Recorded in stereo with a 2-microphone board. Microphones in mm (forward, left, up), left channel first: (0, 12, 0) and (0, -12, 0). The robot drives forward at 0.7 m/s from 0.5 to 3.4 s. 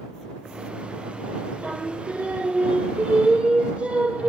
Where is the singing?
70° right (ahead or behind), 5.5 m; by 4.3 s 60° right (ahead or behind), 6 m.